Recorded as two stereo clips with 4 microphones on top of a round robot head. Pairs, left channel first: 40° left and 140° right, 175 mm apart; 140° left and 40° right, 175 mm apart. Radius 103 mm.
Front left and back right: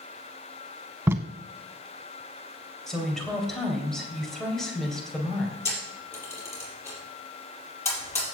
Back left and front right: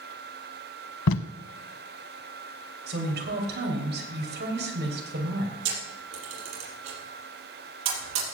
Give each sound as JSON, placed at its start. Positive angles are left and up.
{"t": 1.1, "sound": "tape being pulled", "azimuth_deg": 140, "distance_m": 0.6}
{"t": 2.9, "sound": "a woman speaking", "azimuth_deg": -50, "distance_m": 3.0}
{"t": 5.7, "sound": "a camera shutter", "azimuth_deg": -35, "distance_m": 5.0}